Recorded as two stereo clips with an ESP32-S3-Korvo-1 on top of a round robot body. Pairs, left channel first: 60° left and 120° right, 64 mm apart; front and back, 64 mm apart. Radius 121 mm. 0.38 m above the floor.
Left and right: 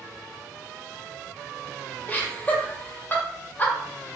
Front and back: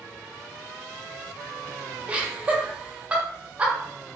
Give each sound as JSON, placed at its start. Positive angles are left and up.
{"t": 2.1, "sound": "laughter", "azimuth_deg": 115, "distance_m": 1.2}